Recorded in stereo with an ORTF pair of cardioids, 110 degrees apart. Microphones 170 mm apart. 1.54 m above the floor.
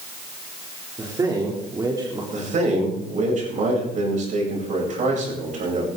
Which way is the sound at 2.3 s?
45° right.